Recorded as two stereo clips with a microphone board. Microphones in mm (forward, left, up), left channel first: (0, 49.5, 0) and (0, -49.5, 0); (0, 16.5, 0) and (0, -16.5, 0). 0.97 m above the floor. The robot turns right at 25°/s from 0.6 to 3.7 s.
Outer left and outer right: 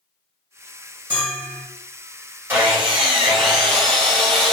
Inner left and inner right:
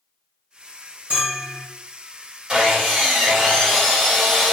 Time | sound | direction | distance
1.1 | a bell | 50° right (ahead or behind) | 1.6 m
2.5 | sawing | 25° right | 1.7 m